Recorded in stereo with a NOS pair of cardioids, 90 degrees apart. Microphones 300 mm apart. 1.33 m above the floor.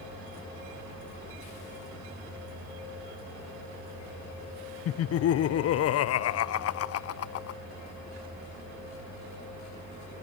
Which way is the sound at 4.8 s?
50° left.